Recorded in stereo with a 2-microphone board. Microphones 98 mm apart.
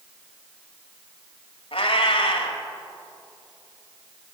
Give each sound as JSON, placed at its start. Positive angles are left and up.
{"t": 1.7, "sound": "a cat meowing", "side_deg": 75, "distance_m": 1.5}